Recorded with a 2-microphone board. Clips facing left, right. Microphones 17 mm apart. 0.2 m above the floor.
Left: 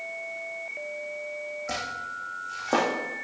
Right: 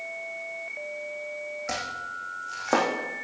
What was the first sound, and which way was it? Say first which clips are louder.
Chopping: right 1 dB; 25° right (ahead or behind).